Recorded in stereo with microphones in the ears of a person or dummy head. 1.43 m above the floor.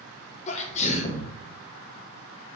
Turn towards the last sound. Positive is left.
turn(degrees=45)  # may be behind; listen again after turning